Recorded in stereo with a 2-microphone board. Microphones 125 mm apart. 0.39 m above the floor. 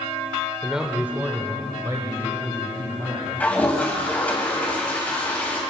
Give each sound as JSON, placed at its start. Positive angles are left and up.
{"t": 0.6, "sound": "a man speaking", "side_deg": 0, "distance_m": 1.0}
{"t": 3.4, "sound": "a toilet flushing", "side_deg": 10, "distance_m": 3.0}